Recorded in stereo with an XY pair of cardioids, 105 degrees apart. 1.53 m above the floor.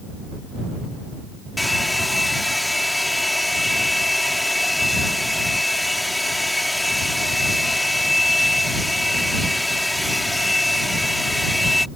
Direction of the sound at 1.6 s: 5° left.